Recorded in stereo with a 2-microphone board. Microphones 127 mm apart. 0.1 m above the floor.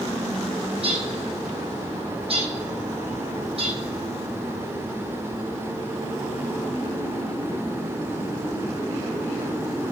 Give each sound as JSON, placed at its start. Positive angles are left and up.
{"t": 0.8, "sound": "a bird", "side_deg": -50, "distance_m": 3.0}